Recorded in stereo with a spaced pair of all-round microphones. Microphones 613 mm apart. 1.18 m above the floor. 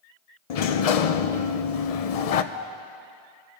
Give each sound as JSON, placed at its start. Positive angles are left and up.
{"t": 0.5, "sound": "a sliding door", "side_deg": 80, "distance_m": 0.6}
{"t": 2.5, "sound": "a doorbell", "side_deg": -65, "distance_m": 3.0}